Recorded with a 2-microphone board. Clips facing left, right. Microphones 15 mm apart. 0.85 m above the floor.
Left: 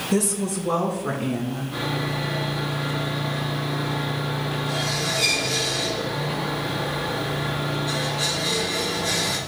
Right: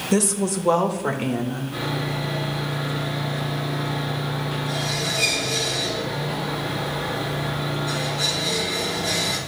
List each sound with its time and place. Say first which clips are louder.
0.1 s a woman speaking: right 3 dB; 40° right (ahead or behind), 1.0 m; by 1.6 s 70° right (ahead or behind), 2 m
1.7 s sawing: left 2 dB; 5° right (ahead or behind), 4 m